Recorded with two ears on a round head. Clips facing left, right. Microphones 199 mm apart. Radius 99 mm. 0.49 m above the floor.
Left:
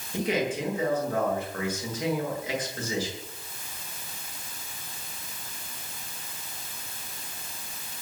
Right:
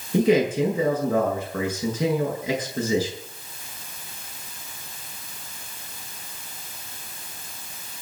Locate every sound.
0.1 s a man speaking: 70° right (ahead or behind), 9 m